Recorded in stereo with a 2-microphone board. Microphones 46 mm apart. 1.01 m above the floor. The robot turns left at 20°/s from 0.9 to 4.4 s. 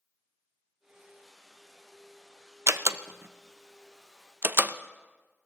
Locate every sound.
2.7 s a door slam: 65° right (ahead or behind), 0.5 m; by 4.7 s 45° right (ahead or behind), 0.5 m